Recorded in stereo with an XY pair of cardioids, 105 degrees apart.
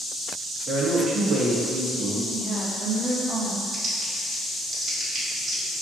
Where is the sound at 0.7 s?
65° right, 1.3 m.